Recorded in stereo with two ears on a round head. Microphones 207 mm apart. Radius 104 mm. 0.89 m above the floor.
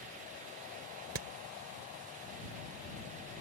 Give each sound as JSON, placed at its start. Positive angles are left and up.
{"t": 1.1, "sound": "hammering", "side_deg": -60}